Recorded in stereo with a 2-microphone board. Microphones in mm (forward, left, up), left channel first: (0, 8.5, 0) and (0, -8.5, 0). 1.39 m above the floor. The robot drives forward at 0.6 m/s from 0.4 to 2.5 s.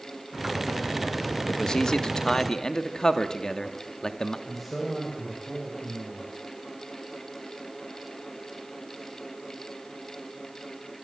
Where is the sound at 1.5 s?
60° left (ahead or behind), 1.7 m; by 4.4 s 45° left (ahead or behind), 2 m.